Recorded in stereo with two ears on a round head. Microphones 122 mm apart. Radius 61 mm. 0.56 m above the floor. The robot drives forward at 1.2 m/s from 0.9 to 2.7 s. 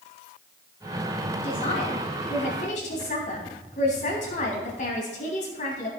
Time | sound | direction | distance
1.4 | a man speaking | 40° left (ahead or behind) | 4.5 m